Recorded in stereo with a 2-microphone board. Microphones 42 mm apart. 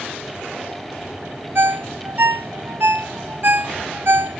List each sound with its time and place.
1.6 s a ringtone: 55° right (ahead or behind), 0.8 m